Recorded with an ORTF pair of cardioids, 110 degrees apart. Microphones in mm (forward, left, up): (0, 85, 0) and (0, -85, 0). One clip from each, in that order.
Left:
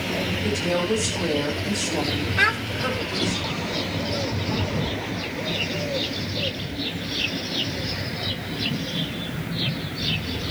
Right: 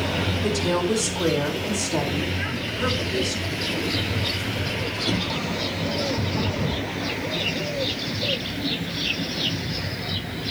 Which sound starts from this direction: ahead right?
A woman speaking, at 0.4 s.